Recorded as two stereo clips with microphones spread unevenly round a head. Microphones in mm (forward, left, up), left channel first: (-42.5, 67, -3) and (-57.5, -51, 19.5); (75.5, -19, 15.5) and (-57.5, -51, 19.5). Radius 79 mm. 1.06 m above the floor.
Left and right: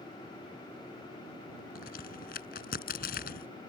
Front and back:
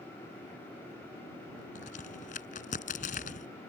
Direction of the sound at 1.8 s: 60° left.